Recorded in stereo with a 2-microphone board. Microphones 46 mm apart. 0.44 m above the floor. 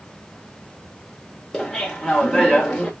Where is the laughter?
Centre (ahead or behind), 1.3 m.